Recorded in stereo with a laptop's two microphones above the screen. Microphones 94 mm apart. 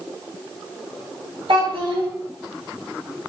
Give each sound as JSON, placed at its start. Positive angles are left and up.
{"t": 1.5, "sound": "a child speaking", "side_deg": -60, "distance_m": 1.2}